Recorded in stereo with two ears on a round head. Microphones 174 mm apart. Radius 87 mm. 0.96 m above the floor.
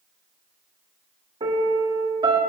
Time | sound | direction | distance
1.4 | a piano | 25° right (ahead or behind) | 1.8 m